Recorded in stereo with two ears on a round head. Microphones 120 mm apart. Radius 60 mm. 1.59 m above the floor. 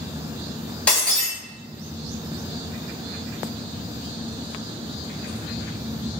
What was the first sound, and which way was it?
Breaking glass, 10° left (ahead or behind).